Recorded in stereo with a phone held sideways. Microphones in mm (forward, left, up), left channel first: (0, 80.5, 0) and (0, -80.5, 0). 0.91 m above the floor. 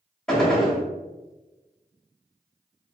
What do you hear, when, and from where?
0.3 s a gunshot: 5° left (ahead or behind), 0.9 m